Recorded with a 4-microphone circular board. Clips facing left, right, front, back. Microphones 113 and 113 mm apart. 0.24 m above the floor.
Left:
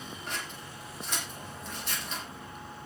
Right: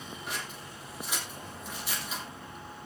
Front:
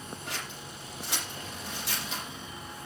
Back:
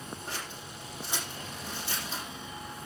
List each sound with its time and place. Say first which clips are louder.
0.3 s scissors: even, even; 10° right, 7.5 m